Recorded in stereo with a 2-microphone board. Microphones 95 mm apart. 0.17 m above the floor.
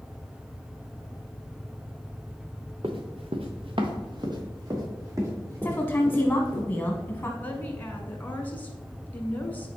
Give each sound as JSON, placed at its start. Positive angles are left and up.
{"t": 2.8, "sound": "running footsteps", "side_deg": -65, "distance_m": 1.0}
{"t": 5.6, "sound": "a woman speaking", "side_deg": 20, "distance_m": 1.5}
{"t": 7.4, "sound": "a woman speaking", "side_deg": 20, "distance_m": 1.4}